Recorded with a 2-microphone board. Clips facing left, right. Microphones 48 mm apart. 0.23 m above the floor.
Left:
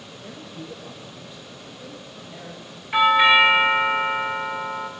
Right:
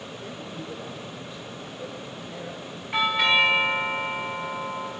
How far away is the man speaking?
About 8.5 m.